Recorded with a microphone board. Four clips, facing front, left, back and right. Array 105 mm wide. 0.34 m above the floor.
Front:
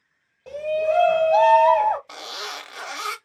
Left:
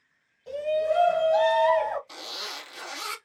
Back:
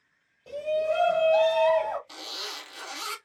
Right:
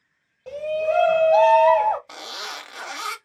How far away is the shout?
About 1.3 m.